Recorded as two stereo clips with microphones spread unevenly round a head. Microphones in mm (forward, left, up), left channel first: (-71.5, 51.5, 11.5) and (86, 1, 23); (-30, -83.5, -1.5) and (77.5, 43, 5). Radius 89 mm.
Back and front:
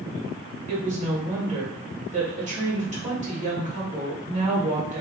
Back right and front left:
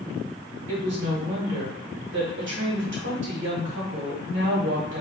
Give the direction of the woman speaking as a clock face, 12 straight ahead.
11 o'clock.